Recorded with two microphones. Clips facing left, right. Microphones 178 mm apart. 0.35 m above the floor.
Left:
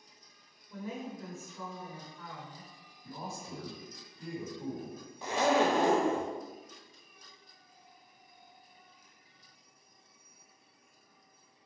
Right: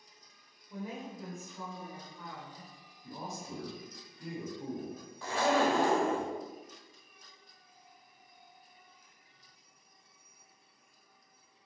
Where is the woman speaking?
15° right (ahead or behind), 0.8 m.